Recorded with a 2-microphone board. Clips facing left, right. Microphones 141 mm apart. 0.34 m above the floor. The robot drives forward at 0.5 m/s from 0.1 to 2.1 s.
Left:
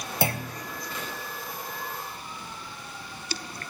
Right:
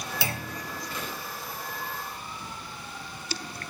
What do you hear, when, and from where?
0.2 s a clunk: 50° left (ahead or behind), 0.7 m; by 0.7 s 40° left (ahead or behind), 0.8 m